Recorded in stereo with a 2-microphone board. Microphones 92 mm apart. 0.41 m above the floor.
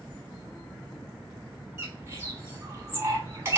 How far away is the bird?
About 1.4 m.